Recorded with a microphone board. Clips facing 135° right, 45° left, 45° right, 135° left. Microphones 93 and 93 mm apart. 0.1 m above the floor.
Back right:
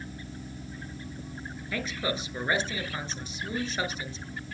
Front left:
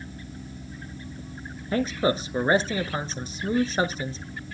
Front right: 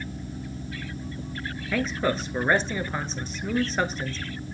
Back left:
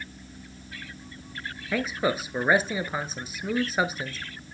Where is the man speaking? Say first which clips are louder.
Front left 8 dB, front right 1 dB; 60° left, 1.4 m.